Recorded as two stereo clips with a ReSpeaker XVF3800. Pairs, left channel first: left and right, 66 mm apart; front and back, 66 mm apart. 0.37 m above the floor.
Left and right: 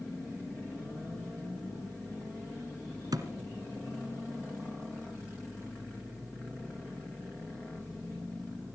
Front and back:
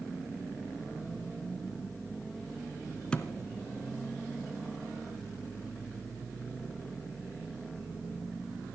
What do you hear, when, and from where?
3.1 s a thud: 75° right, 1.7 m